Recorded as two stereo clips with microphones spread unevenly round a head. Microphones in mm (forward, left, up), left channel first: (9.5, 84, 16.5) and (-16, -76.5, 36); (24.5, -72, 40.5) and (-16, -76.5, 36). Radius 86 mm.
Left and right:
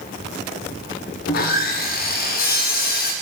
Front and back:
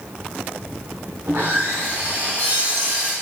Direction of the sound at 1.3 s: 120° left.